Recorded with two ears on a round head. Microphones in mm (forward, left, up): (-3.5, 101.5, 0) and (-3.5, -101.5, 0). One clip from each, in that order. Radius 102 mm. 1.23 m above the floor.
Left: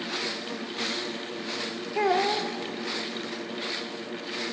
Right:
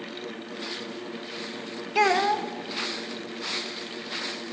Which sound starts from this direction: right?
A child speaking, at 1.9 s.